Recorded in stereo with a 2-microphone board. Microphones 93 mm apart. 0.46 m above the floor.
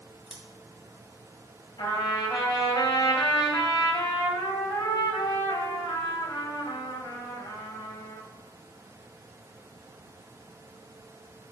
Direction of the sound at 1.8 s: 50° left (ahead or behind).